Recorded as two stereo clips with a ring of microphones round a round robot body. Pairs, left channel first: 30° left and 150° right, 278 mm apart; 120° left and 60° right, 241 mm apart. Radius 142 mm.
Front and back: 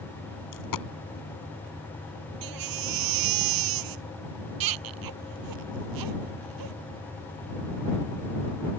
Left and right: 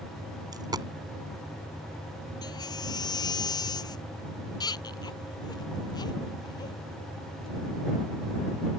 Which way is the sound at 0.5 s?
15° left.